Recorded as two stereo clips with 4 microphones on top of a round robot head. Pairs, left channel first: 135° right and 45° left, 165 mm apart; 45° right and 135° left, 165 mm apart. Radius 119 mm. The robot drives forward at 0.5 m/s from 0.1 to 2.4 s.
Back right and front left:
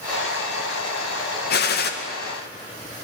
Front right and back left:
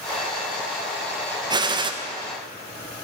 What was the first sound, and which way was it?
A gunshot, 160° right.